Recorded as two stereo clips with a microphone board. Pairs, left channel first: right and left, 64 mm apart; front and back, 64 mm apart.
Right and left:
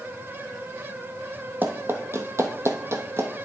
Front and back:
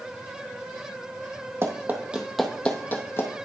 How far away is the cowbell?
No cowbell in this recording.